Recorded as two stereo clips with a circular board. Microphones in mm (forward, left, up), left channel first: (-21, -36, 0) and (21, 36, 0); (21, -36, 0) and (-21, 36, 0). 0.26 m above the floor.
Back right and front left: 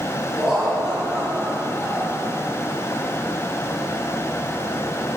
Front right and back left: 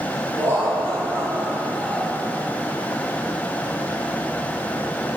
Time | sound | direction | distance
0.3 | laughter | 140° left | 2 m